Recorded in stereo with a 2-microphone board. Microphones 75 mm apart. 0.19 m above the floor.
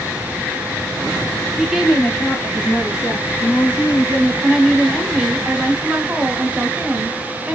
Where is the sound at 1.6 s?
15° right (ahead or behind), 1.2 m; by 4.3 s 55° left (ahead or behind), 2 m.